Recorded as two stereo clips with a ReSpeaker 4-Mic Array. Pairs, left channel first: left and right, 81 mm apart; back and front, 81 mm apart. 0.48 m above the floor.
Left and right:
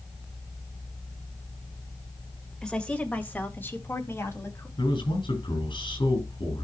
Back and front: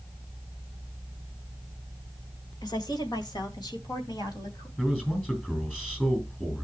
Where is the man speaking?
105° left, 5.5 m.